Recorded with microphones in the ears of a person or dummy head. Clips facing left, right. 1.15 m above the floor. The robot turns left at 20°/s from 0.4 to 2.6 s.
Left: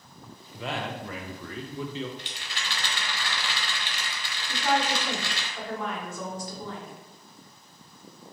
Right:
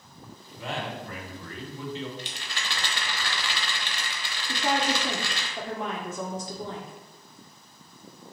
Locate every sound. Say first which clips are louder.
0.5 s a man speaking: left 1 dB; 115° left, 0.6 m; by 2.1 s 85° left, 0.6 m
2.2 s a rattle: right 2 dB; 35° right (ahead or behind), 0.8 m; by 5.5 s 40° right (ahead or behind), 0.8 m
4.5 s a woman speaking: even; 25° right (ahead or behind), 0.6 m